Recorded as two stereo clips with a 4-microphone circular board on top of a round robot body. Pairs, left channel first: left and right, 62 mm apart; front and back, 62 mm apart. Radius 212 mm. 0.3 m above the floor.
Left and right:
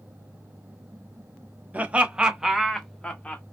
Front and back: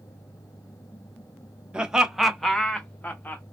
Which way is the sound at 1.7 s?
120° right.